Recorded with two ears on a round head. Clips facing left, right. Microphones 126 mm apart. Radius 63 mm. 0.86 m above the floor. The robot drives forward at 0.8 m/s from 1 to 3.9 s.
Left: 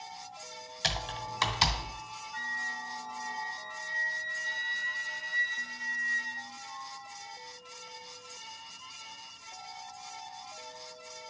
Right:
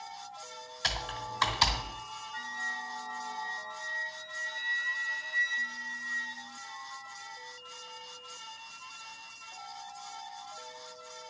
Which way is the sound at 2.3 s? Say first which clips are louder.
Left 1 dB; 50° left (ahead or behind).